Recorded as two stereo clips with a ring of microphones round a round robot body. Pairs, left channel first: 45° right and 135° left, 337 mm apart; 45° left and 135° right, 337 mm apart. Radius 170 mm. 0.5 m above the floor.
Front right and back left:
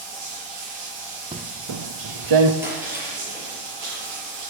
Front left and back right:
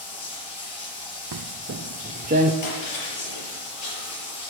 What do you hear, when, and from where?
0.0 s running water: 95° left, 7 m
1.3 s footsteps: 150° right, 0.6 m; by 2.5 s 155° left, 2.0 m
2.6 s breaking glass: 50° left, 5.5 m